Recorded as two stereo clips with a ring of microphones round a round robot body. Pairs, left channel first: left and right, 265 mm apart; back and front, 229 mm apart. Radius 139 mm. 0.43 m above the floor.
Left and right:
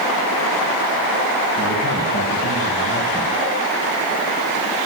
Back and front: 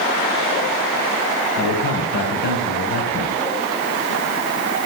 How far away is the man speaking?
About 3.5 m.